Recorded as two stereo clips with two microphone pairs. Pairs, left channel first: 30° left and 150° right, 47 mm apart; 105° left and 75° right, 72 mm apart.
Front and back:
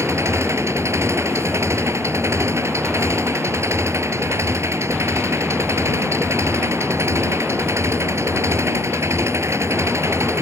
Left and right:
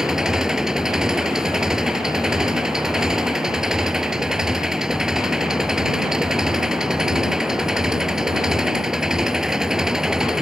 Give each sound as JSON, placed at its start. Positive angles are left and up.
{"t": 0.0, "sound": "an engine running", "azimuth_deg": -155}